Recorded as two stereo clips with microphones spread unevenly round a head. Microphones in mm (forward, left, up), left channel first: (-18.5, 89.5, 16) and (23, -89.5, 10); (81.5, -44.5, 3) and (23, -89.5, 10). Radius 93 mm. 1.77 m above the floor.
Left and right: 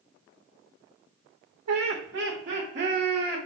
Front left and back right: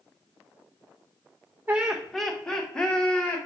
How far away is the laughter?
About 0.5 m.